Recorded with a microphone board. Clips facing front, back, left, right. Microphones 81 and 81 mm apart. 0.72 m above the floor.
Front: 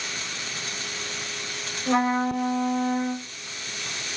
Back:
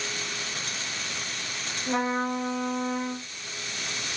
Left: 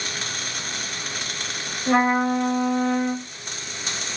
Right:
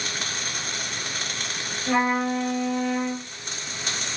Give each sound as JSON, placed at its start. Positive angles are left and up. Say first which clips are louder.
{"t": 1.9, "sound": "a trumpet", "louder": "front 4 dB, left 3 dB", "azimuth_deg": 25, "distance_m": 4.0}